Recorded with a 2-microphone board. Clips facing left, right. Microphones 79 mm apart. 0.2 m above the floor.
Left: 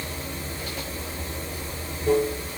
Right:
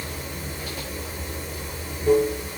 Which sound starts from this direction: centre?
Running water, at 0.0 s.